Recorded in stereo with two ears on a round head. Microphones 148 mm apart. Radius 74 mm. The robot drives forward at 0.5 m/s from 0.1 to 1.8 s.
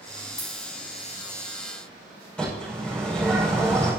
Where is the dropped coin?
20° left (ahead or behind), 4 m.